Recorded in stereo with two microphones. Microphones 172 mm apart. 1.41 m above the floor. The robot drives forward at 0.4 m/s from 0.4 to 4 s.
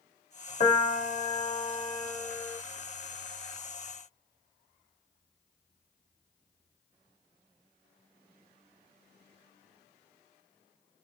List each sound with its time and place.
0.6 s a piano: 40° left (ahead or behind), 1.4 m; by 2.6 s 35° left (ahead or behind), 1.5 m